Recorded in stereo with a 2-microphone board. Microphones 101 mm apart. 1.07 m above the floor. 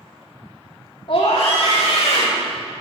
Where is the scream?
65° left (ahead or behind), 3 m; by 2.5 s 75° left (ahead or behind), 2 m.